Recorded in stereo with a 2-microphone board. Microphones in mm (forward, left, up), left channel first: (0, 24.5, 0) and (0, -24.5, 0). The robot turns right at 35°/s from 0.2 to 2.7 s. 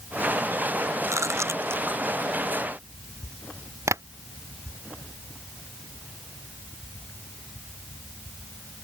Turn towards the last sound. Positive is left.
turn(degrees=-70)  # may be behind; listen again after turning